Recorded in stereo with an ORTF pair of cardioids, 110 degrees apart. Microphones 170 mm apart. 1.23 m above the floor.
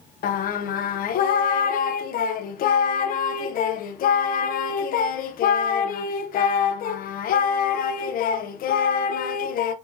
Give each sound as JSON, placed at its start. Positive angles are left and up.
{"t": 0.2, "sound": "singing", "azimuth_deg": 60, "distance_m": 0.6}